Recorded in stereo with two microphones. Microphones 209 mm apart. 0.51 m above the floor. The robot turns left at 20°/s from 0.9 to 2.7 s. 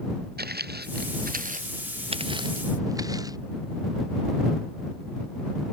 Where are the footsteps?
50° right (ahead or behind); by 3.4 s 20° right (ahead or behind).